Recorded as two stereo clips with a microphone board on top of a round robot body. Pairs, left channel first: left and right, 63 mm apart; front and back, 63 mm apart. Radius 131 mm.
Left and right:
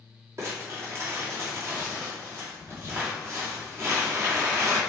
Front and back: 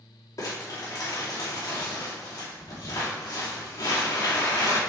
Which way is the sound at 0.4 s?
40° right.